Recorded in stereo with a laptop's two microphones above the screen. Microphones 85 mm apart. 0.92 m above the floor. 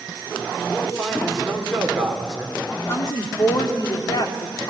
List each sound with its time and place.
0.7 s a man speaking: centre (ahead or behind), 3 m
2.7 s a woman speaking: 55° left (ahead or behind), 2 m